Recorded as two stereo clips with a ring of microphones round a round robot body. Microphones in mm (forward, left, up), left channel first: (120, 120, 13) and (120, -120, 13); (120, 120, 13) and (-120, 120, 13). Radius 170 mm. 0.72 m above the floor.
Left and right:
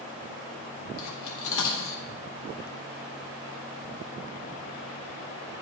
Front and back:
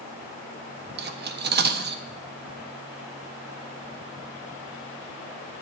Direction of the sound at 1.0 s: 130° left.